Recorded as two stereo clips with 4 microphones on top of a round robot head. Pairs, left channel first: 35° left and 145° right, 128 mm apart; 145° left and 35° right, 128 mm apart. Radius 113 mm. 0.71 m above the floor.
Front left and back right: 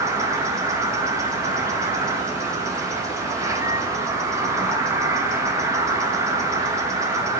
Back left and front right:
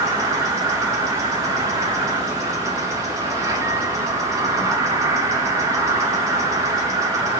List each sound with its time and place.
0.0 s an insect: 90° right, 1.3 m